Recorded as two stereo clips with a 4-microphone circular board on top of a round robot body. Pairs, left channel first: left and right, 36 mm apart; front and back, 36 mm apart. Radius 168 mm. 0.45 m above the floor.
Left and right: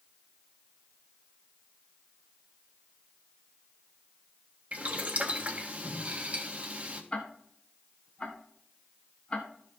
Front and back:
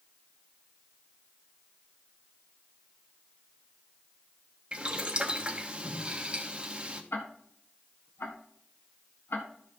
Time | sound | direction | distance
4.7 | boiling | 125° right | 1.7 m
7.1 | ticking | 25° left | 1.5 m